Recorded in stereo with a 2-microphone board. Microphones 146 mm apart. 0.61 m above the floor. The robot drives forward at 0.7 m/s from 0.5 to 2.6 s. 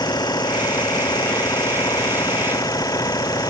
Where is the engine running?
25° left (ahead or behind).